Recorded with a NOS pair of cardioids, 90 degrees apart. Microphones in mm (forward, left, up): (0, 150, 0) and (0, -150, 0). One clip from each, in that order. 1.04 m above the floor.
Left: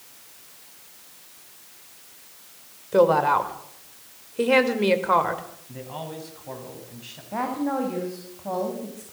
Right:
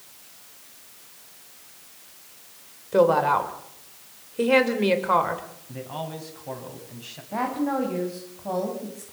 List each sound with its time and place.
2.9 s a woman speaking: 5° left, 4.5 m
5.7 s a man speaking: 15° right, 9 m
7.3 s a woman speaking: straight ahead, 6 m